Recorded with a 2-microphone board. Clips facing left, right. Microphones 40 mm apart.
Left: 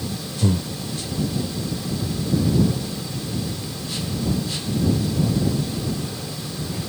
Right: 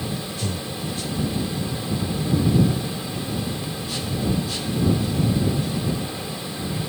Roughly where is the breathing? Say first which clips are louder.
Left 6 dB; left.